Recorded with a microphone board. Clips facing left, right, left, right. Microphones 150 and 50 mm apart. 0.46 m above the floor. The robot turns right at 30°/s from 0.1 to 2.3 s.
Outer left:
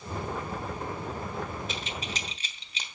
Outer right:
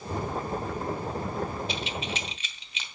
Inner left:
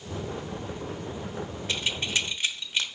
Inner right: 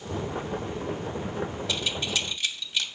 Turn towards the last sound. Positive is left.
turn(degrees=40)  # may be behind; listen again after turning